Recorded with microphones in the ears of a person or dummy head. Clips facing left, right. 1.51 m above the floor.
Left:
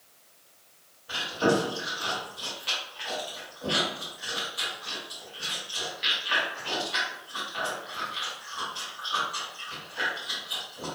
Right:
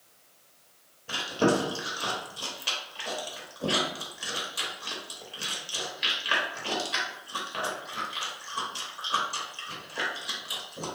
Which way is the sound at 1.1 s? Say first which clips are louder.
Even; 50° right (ahead or behind).